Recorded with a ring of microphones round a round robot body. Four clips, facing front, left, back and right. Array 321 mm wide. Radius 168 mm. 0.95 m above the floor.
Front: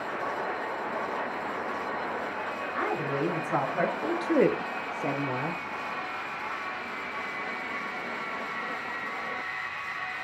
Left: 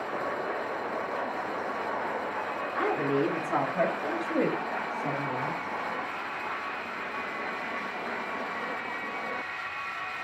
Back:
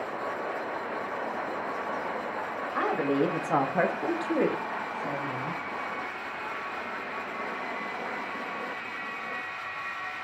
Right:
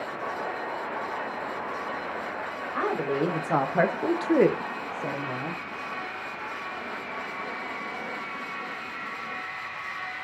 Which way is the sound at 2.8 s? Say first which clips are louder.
Right 1 dB, back 4 dB; 145° right.